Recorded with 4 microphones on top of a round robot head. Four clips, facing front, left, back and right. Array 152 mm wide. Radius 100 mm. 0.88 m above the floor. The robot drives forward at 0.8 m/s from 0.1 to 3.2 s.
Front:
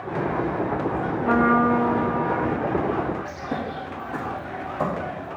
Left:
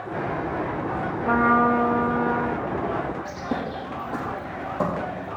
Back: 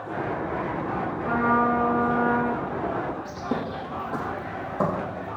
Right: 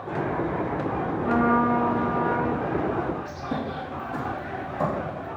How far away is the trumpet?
About 0.8 m.